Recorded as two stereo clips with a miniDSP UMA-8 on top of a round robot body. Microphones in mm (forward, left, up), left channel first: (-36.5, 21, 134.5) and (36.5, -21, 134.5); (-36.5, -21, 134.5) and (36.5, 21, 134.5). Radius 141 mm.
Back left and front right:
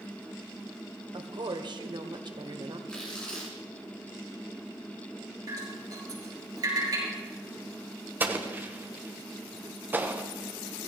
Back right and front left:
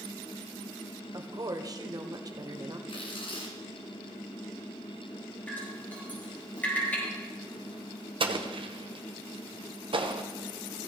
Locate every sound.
1.1 s a woman speaking: 10° right, 1.7 m
2.9 s tearing paper: 130° right, 3 m
5.5 s dripping: 80° right, 5.5 m
8.2 s an explosion: 35° left, 1.4 m